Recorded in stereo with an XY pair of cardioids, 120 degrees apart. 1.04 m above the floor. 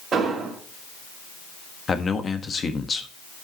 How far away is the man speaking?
About 1.2 m.